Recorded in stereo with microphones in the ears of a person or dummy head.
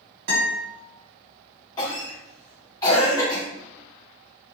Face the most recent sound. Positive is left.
turn(degrees=20)  # may be behind; listen again after turning